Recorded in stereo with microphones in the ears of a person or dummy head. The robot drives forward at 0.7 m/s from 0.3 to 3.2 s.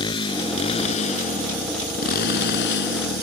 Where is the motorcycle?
25° left (ahead or behind); by 3.2 s 70° left (ahead or behind).